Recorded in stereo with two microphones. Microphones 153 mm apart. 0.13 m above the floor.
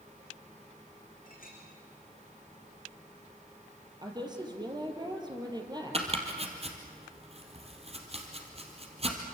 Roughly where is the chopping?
Right.